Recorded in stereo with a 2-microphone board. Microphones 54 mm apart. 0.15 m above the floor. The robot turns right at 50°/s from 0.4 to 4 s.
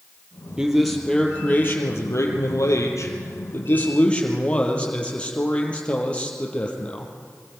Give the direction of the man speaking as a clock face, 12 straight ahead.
12 o'clock.